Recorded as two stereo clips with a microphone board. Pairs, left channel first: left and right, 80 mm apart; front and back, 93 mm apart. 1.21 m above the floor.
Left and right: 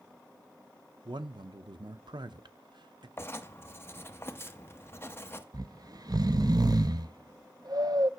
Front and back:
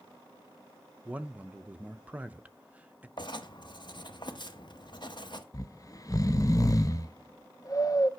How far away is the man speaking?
About 0.6 m.